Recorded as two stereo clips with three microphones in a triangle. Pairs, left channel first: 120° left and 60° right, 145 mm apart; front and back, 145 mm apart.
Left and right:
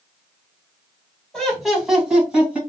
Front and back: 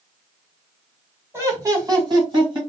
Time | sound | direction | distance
1.3 | laughter | 160° right | 1.5 m